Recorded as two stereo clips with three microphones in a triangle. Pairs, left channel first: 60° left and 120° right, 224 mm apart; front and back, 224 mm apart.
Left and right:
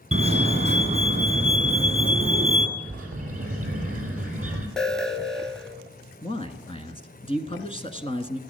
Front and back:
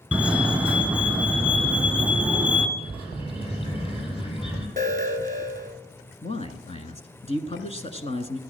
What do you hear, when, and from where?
0.1 s a fire alarm: 100° right, 2 m
2.8 s a bird: 65° right, 3.5 m
4.8 s an alarm: 145° left, 1.0 m
6.2 s a man speaking: 25° left, 1.1 m